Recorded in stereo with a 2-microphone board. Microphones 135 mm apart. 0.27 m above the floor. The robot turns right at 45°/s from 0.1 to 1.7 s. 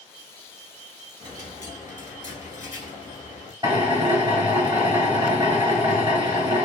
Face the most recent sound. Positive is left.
turn(degrees=-30)  # may be behind; listen again after turning